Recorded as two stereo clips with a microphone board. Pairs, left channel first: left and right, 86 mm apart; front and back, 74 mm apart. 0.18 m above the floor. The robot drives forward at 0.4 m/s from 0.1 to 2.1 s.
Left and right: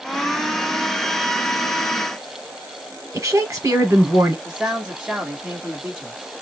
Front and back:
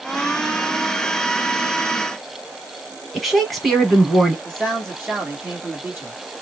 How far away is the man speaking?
About 1.2 m.